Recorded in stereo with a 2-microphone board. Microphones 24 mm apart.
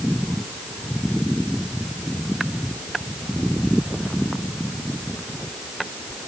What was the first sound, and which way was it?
Only background noise.